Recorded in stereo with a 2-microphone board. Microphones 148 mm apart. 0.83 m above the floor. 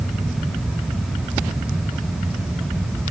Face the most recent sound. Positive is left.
No sound to turn to.